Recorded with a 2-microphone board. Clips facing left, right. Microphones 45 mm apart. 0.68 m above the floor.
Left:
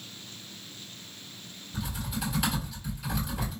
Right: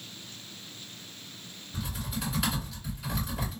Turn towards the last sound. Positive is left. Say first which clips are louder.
# left 1 dB
turn(degrees=0)  # may be behind; listen again after turning